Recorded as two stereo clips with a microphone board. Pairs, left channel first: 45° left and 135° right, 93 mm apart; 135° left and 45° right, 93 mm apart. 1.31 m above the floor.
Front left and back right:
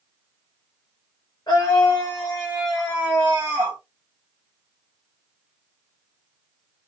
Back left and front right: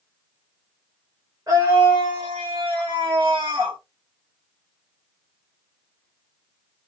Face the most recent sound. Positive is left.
turn(degrees=-80)